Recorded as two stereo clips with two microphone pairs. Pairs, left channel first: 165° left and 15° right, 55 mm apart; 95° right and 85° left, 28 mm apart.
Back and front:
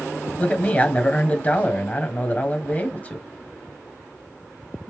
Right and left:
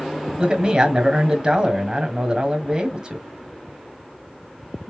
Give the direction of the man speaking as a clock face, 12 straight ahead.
8 o'clock.